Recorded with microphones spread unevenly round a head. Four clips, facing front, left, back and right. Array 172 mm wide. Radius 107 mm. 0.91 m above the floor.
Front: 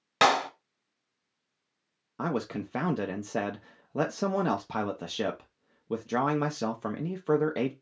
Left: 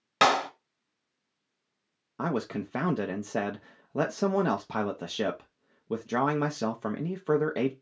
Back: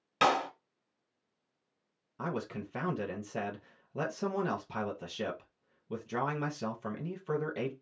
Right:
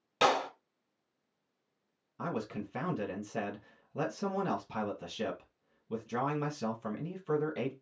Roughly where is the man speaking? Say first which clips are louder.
Left 6 dB, front 6 dB; ahead left.